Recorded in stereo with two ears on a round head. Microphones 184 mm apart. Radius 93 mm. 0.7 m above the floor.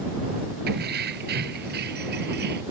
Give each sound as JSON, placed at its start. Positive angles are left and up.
{"t": 0.7, "sound": "keys jangling", "side_deg": -55}